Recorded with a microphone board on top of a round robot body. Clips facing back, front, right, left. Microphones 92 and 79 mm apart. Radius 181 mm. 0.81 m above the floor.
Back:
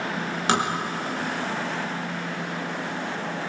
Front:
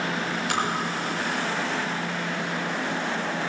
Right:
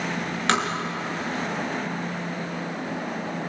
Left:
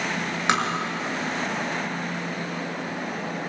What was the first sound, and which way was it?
Tapping, 165° left.